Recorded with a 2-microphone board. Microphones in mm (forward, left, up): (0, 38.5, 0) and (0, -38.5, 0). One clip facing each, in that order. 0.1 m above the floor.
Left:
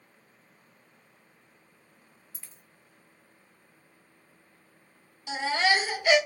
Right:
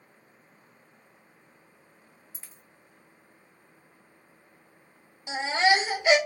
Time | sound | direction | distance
2.3 | a dropped coin | 25° right (ahead or behind) | 0.7 m
5.3 | a baby crying | 25° right (ahead or behind) | 0.8 m